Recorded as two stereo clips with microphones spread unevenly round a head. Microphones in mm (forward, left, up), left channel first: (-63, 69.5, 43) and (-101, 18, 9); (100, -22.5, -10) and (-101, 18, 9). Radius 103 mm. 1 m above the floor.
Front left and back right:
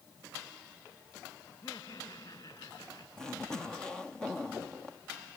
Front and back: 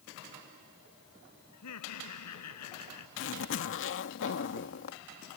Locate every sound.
1.5 s laughter: 15° right
3.2 s a zipper: 40° right